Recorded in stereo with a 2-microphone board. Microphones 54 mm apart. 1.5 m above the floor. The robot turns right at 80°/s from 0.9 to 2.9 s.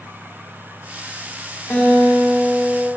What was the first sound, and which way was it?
A guitar, 140° left.